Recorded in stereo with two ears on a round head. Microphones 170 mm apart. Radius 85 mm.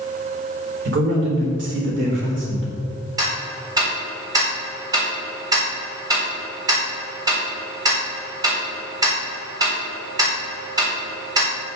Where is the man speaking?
65° right (ahead or behind), 4 m.